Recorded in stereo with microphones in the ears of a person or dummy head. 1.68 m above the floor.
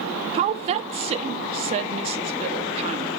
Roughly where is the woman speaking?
Right.